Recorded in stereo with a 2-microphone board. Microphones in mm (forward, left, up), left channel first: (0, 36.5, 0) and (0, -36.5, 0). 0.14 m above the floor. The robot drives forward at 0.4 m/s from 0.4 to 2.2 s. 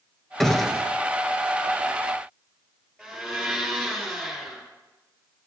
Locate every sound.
0.4 s a gunshot: 5° left (ahead or behind), 0.8 m
3.0 s a blender: centre (ahead or behind), 3.5 m